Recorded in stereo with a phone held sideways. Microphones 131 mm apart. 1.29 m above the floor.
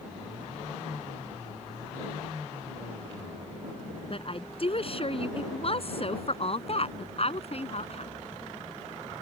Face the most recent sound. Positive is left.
turn(degrees=50)  # may be behind; listen again after turning